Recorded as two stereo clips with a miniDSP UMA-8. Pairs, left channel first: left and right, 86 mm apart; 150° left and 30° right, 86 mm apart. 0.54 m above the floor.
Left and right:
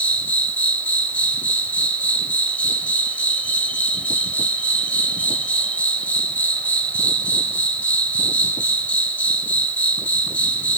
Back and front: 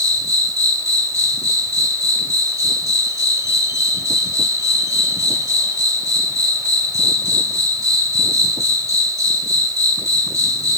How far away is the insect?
About 0.8 m.